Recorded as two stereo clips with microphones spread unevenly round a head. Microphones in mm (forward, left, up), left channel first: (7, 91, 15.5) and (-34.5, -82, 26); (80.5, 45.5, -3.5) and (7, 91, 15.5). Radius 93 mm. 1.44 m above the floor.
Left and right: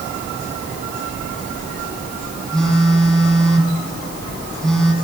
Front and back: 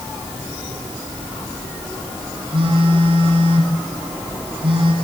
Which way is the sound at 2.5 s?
165° left.